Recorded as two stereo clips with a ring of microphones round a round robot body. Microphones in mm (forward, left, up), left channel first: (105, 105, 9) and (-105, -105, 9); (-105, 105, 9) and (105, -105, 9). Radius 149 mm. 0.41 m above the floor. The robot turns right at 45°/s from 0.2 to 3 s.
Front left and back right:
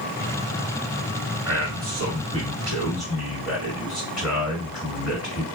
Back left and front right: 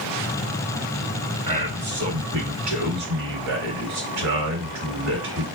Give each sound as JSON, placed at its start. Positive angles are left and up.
{"t": 1.5, "sound": "a man speaking", "azimuth_deg": -115, "distance_m": 1.6}